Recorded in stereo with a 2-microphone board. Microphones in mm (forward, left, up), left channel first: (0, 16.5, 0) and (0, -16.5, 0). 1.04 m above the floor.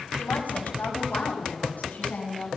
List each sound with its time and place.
0.2 s a woman speaking: 75° left (ahead or behind), 6 m; by 2.5 s 50° left (ahead or behind), 8 m